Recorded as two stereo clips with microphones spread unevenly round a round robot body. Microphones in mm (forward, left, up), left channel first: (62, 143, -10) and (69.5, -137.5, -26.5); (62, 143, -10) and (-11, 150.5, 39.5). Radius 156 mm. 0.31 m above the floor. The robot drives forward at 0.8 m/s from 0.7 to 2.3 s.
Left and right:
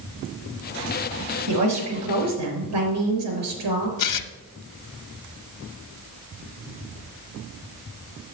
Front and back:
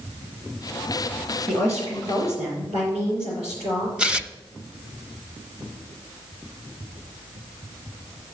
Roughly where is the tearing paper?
Left.